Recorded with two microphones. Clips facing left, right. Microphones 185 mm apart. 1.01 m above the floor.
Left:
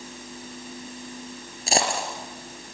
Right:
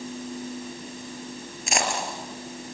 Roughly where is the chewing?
I don't hear chewing.